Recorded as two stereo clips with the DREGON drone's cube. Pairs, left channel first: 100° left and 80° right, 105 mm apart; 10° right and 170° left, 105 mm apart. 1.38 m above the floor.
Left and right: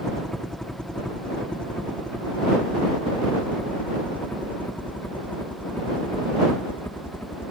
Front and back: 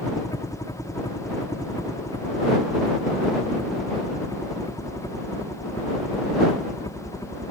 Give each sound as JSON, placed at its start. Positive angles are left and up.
{"t": 0.0, "sound": "a helicopter", "azimuth_deg": 20}